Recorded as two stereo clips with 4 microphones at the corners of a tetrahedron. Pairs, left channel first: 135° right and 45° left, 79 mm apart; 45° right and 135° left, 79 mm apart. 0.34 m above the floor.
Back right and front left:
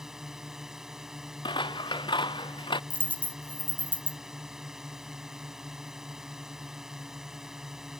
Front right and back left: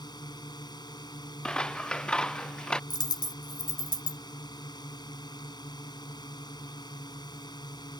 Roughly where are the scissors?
Behind right.